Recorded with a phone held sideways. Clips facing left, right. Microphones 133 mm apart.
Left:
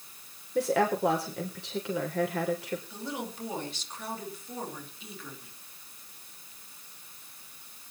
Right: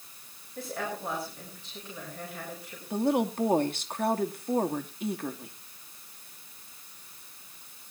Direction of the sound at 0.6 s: 80° left.